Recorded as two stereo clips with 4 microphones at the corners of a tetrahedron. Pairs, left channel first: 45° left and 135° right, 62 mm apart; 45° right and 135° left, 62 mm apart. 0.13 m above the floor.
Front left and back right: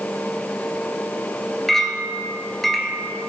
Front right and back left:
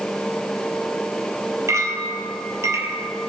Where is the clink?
125° left, 1.8 m.